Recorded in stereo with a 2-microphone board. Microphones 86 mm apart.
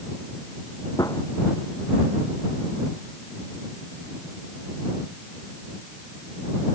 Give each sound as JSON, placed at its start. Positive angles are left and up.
{"t": 1.0, "sound": "a gunshot", "side_deg": 40}